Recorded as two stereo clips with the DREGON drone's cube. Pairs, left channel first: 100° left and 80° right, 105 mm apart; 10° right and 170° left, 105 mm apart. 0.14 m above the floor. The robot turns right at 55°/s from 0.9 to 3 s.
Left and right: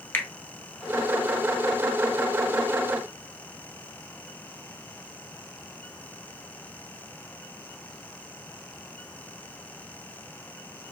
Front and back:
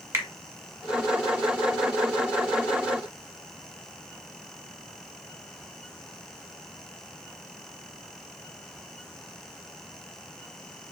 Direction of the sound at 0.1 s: 140° left.